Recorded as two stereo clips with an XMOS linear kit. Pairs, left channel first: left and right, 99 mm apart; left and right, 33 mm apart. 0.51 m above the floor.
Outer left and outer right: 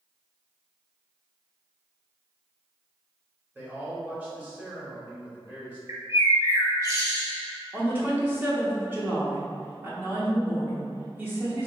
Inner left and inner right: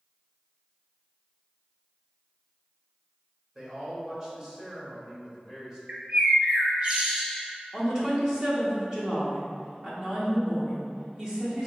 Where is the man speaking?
20° right (ahead or behind), 1.0 m.